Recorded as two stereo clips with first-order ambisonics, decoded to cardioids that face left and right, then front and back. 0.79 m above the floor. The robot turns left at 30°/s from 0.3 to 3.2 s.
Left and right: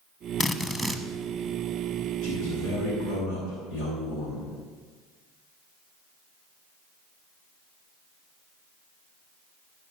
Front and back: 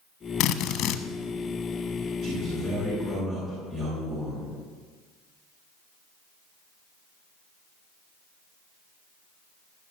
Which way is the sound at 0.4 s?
10° left.